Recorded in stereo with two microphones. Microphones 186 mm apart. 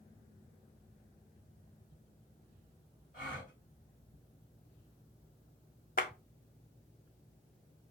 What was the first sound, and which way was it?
A gasp, 45° left (ahead or behind).